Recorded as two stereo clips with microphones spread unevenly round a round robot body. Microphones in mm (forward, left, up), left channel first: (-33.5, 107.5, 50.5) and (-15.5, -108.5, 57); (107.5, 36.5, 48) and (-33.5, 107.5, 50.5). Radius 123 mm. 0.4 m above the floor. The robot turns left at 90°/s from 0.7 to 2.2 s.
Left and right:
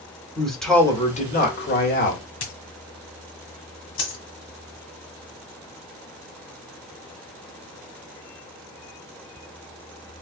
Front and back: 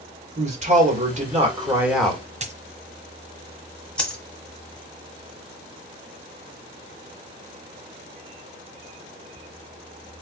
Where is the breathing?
No breathing in this recording.